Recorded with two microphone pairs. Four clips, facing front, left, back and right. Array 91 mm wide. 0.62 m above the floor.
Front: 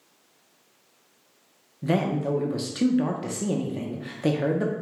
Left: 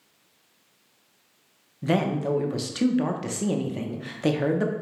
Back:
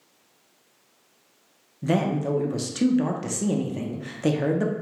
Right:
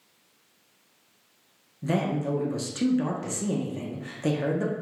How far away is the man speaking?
About 0.5 m.